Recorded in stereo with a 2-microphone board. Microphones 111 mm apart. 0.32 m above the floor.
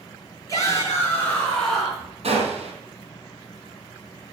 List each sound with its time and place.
0.5 s a shout: 30° left (ahead or behind), 4 m; by 2.1 s 5° right (ahead or behind), 4 m
2.2 s a gunshot: 65° right (ahead or behind), 4 m